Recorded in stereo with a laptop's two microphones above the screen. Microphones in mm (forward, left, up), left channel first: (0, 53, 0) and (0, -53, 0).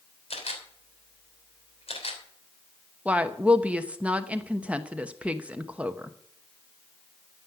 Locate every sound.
0.3 s a camera shutter: 70° left (ahead or behind), 3 m
3.0 s a woman speaking: 10° right (ahead or behind), 0.8 m